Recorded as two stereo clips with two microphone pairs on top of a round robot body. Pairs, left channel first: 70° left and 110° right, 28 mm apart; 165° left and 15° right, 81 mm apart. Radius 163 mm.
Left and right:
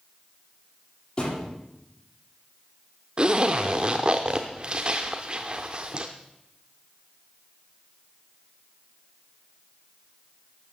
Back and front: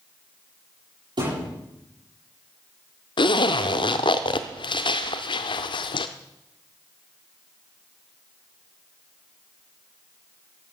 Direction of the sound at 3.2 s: 170° right.